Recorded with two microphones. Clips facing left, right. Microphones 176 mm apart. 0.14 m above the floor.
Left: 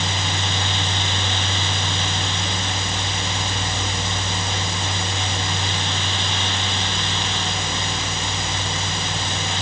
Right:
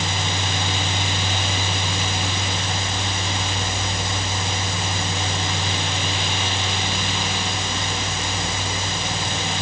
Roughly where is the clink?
No clink in this recording.